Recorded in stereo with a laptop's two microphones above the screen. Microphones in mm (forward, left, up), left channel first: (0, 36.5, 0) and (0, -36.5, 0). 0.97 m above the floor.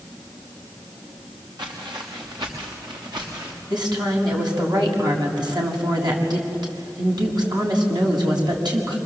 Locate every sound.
1.6 s footsteps: 75° right (ahead or behind), 4.5 m
3.7 s a woman speaking: 70° right (ahead or behind), 6.5 m